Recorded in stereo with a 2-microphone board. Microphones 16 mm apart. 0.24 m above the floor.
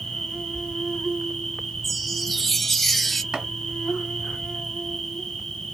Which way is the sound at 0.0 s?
60° left (ahead or behind).